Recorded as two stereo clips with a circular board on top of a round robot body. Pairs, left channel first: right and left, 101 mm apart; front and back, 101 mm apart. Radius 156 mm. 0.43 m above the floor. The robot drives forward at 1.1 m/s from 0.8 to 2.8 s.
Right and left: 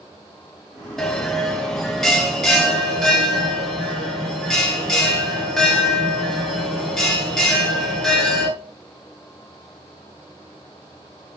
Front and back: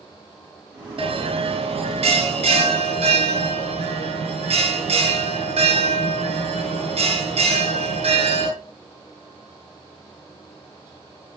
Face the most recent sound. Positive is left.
turn(degrees=180)